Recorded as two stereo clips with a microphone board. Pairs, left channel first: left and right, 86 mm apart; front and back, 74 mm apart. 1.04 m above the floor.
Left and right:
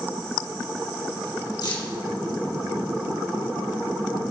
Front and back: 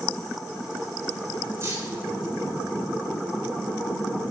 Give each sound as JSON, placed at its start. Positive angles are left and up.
{"t": 1.6, "sound": "keys jangling", "azimuth_deg": 130, "distance_m": 5.0}